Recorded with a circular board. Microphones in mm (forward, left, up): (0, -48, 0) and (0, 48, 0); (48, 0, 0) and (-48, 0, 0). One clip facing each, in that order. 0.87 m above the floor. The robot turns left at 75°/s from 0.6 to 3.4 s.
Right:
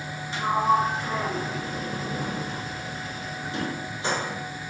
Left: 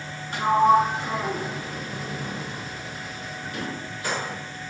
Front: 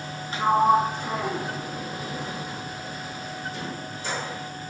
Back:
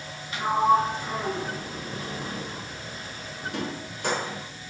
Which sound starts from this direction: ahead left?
A sliding door, at 0.3 s.